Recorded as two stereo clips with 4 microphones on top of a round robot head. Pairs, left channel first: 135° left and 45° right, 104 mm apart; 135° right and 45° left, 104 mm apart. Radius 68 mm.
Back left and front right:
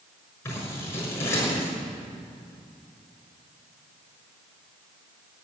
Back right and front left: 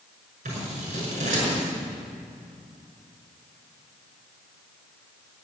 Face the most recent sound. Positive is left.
turn(degrees=65)